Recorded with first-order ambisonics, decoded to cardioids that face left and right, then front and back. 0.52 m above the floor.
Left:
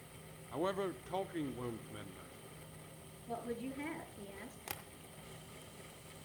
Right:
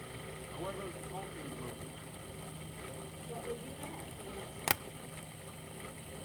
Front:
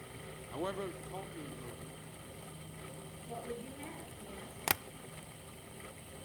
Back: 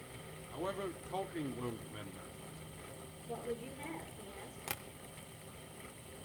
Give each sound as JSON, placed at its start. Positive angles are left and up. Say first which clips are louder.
{"t": 0.5, "sound": "a man speaking", "louder": "left 6 dB, front 1 dB", "azimuth_deg": 55, "distance_m": 0.9}
{"t": 3.3, "sound": "a woman speaking", "louder": "left 1 dB, back 2 dB", "azimuth_deg": 80, "distance_m": 8.5}
{"t": 4.7, "sound": "tapping", "louder": "right 14 dB, front 10 dB", "azimuth_deg": -50, "distance_m": 0.6}